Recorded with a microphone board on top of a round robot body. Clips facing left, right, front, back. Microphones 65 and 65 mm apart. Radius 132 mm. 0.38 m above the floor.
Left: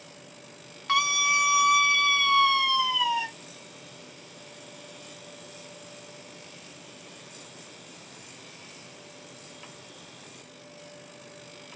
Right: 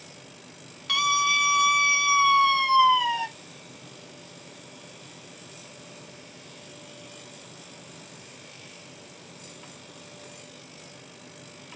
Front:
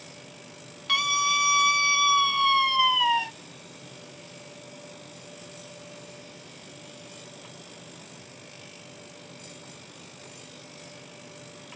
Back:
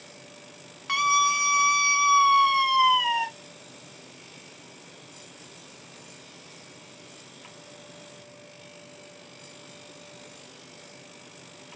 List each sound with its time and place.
0.9 s a scream: 125° left, 1.0 m; by 3.3 s 105° right, 1.2 m